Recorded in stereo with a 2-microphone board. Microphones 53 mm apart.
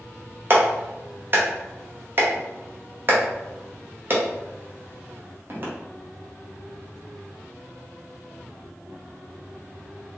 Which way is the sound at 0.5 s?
40° right (ahead or behind).